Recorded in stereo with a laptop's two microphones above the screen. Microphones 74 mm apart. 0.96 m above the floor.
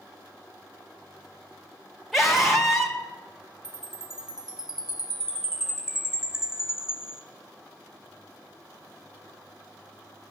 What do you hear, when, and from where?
2.1 s a scream: centre (ahead or behind), 2.5 m
3.6 s a chime: 10° right (ahead or behind), 1.0 m